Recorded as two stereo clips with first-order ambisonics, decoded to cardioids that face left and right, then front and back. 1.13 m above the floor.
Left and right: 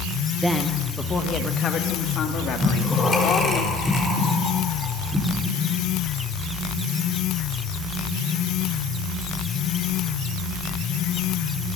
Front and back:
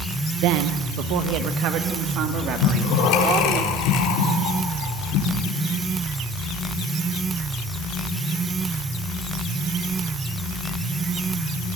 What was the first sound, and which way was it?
A woman speaking, 170° right.